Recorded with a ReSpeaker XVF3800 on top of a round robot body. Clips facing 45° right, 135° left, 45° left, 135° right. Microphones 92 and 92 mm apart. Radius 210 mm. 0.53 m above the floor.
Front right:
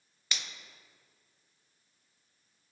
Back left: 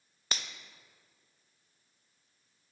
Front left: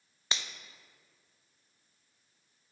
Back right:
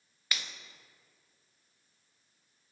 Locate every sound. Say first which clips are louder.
0.3 s a finger snap: back left 1 dB, even; 100° left, 0.6 m